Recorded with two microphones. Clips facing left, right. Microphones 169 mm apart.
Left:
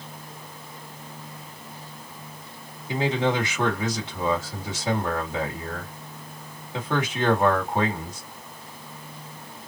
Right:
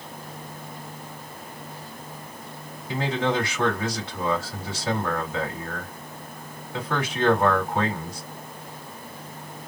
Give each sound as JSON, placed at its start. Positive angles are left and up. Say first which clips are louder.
{"t": 2.9, "sound": "a man speaking", "louder": "left 1 dB", "side_deg": 20, "distance_m": 1.7}